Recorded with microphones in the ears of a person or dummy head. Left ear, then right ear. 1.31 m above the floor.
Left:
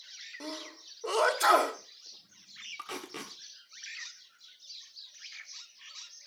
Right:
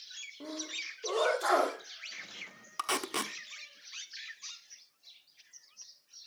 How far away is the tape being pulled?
About 1.3 m.